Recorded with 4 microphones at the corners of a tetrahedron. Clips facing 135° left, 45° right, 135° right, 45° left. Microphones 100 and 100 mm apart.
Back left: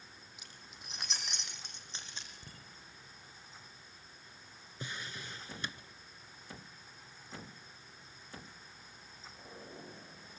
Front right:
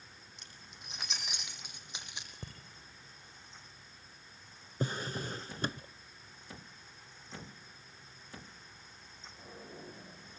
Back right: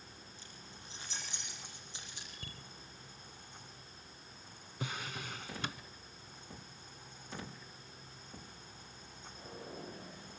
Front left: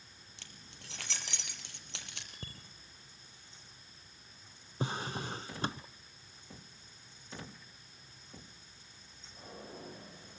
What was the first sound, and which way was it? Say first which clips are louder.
Keys jangling: even, back right 2 dB; 50° left.